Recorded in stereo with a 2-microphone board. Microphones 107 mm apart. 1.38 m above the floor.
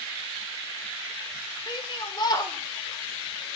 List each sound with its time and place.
1.7 s a shout: 50° left (ahead or behind), 5.5 m; by 3.5 s 15° left (ahead or behind), 4 m